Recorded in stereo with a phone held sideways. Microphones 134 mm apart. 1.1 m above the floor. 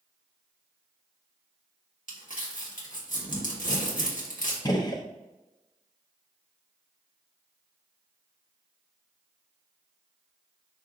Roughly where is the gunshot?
Left.